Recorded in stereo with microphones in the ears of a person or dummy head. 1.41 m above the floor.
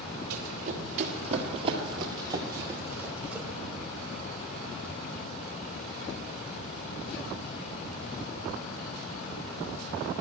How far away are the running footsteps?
About 2 m.